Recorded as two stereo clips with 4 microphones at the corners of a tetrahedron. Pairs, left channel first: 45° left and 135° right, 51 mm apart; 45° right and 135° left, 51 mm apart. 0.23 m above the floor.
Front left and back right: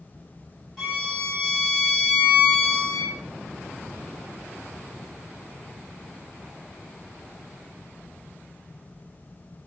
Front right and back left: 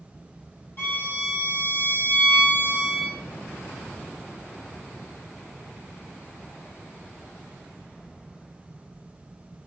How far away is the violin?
About 1.3 m.